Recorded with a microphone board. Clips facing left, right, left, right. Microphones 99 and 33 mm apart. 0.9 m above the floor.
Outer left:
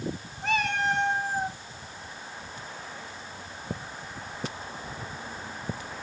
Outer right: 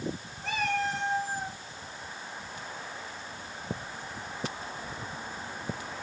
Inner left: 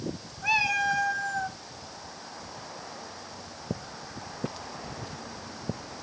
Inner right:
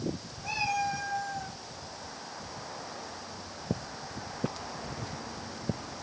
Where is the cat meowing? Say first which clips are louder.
Outer left 3 dB, inner left 6 dB; 75° left (ahead or behind), 2.5 m; by 1.6 s 65° left (ahead or behind), 2.5 m.